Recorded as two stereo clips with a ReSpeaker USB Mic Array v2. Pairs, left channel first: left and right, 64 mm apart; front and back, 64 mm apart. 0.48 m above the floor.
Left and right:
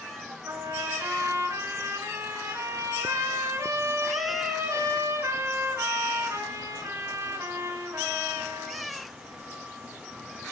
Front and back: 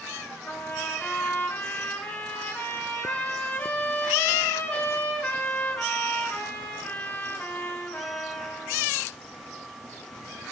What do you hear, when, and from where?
0.4 s a trumpet: 65° right, 6.5 m